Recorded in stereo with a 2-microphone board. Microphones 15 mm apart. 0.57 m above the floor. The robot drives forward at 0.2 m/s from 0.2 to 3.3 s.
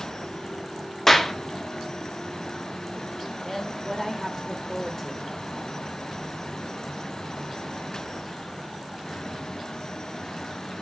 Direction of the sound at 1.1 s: 20° left (ahead or behind).